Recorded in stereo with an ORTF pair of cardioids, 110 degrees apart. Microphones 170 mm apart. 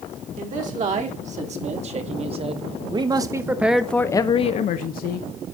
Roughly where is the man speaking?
Ahead right.